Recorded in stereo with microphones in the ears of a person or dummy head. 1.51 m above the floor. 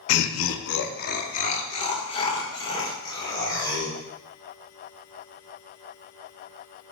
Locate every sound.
0.1 s laughter: 75° left (ahead or behind), 0.6 m; by 4.0 s 20° left (ahead or behind), 3 m